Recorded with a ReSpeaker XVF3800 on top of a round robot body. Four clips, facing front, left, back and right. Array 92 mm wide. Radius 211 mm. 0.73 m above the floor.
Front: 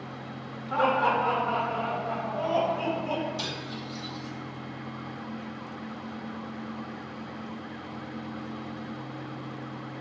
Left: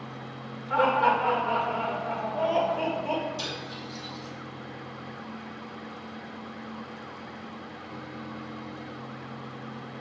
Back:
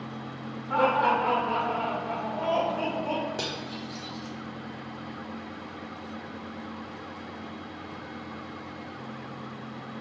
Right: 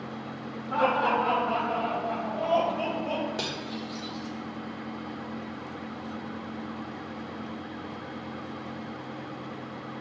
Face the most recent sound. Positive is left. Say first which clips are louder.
# right 2 dB, back 1 dB
turn(degrees=-135)